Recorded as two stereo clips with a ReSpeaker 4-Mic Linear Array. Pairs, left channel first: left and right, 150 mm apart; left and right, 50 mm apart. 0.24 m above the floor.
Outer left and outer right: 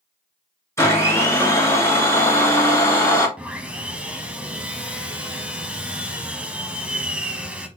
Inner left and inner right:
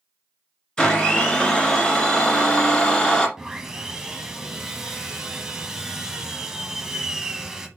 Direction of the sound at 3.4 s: 10° right (ahead or behind).